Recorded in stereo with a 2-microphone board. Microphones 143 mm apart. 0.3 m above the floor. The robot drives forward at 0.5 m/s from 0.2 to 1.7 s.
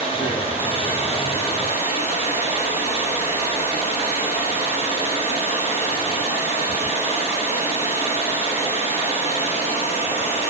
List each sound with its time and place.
0.0 s running water: 40° left (ahead or behind), 5 m; by 10.5 s 45° left (ahead or behind), 4.5 m